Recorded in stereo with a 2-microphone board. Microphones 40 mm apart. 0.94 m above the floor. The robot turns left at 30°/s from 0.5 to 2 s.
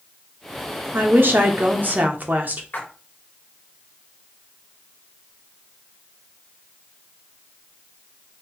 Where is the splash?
45° left (ahead or behind), 1.2 m.